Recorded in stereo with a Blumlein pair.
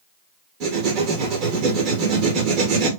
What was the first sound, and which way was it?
Writing, 40° right.